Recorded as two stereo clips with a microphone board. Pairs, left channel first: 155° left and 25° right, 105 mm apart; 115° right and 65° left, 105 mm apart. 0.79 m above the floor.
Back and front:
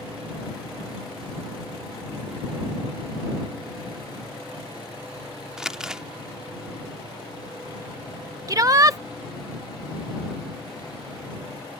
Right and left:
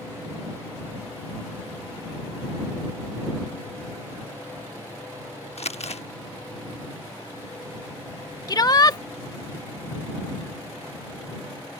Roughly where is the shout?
Right.